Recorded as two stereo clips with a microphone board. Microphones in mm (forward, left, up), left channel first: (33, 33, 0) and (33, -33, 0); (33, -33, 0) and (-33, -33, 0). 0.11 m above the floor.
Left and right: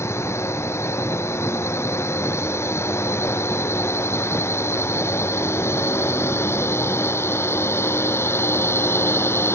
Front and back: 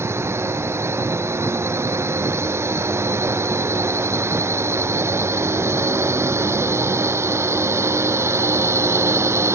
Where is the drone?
135° left; by 9.6 s 140° left.